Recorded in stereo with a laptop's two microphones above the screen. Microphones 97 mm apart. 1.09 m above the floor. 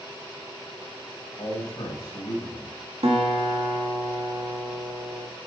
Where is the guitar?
80° right, 1.8 m.